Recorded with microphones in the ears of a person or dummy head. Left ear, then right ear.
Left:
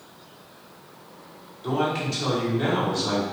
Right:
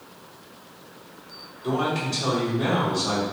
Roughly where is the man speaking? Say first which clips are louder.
Even; left.